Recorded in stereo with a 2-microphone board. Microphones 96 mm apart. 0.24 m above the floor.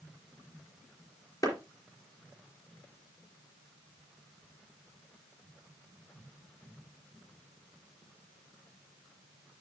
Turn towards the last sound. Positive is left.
turn(degrees=40)  # may be behind; listen again after turning